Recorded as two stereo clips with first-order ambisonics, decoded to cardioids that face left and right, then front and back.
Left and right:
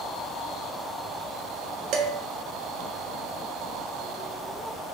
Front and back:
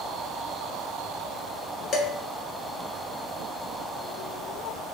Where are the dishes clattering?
55° right, 1.1 m.